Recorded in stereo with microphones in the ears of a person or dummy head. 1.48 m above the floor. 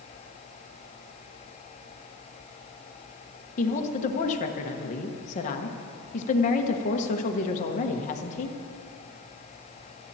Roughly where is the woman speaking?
Left.